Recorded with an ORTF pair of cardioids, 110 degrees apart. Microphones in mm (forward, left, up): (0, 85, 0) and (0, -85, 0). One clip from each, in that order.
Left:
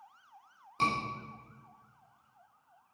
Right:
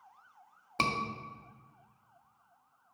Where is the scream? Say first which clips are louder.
Left 1 dB; 65° right, 1.8 m.